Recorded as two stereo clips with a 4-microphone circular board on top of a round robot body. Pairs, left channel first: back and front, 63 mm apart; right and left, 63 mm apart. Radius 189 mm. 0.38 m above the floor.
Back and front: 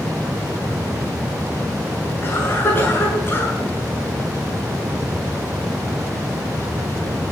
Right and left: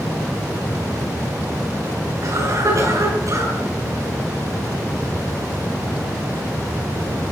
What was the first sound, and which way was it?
A cough, 125° left.